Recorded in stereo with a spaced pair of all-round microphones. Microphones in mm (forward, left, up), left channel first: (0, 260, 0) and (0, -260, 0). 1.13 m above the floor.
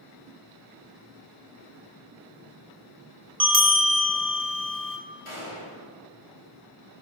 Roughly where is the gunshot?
Left.